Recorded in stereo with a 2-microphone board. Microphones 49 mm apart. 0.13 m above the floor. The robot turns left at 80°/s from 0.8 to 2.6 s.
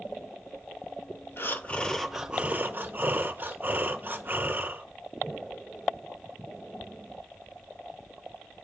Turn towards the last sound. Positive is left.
turn(degrees=-40)